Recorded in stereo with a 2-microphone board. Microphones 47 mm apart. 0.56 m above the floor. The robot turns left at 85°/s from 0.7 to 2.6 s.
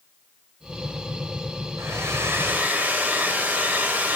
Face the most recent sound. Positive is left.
turn(degrees=-140)